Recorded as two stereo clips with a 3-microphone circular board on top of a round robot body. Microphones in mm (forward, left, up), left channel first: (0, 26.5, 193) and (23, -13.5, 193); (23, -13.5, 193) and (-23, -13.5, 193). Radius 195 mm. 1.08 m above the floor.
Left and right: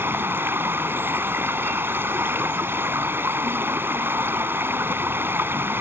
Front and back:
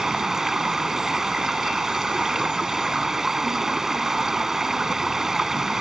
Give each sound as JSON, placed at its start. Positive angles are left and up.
{"t": 0.0, "sound": "running water", "azimuth_deg": -95}